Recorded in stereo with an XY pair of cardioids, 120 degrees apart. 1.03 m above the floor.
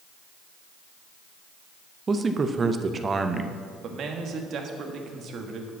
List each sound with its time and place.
2.1 s a man speaking: 30° right, 0.7 m
3.8 s a man speaking: 55° right, 1.5 m